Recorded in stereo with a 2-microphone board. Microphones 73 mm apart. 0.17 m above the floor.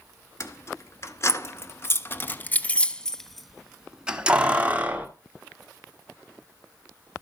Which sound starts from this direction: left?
Keys jangling, at 0.4 s.